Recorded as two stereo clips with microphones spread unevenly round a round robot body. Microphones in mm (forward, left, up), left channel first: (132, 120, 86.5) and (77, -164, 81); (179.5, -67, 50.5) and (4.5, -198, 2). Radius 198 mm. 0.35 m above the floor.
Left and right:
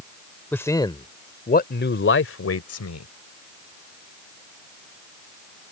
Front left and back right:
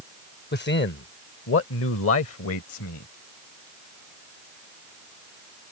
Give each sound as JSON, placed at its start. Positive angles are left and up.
{"t": 0.5, "sound": "a man speaking", "azimuth_deg": -5}